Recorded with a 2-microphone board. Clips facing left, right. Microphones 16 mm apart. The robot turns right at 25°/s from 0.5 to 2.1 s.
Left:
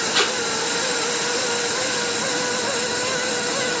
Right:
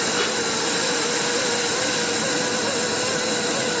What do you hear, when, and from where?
0.1 s tape being pulled: 65° left (ahead or behind), 1.3 m